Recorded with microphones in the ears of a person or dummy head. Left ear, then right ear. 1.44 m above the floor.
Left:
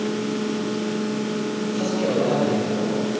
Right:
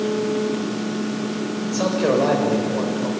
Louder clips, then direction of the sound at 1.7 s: Right 5 dB; 50° right (ahead or behind).